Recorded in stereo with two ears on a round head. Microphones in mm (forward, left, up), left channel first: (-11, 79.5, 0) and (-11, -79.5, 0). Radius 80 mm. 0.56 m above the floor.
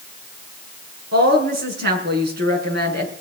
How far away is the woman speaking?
About 6 m.